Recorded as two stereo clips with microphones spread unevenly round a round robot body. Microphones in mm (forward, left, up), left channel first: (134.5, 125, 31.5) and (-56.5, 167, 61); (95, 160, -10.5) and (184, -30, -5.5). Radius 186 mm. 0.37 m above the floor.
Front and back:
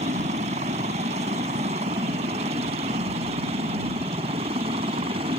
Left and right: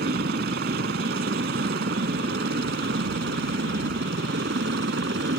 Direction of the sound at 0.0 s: 125° right.